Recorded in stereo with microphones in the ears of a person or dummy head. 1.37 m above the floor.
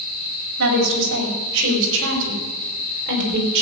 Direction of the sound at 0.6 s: 80° right.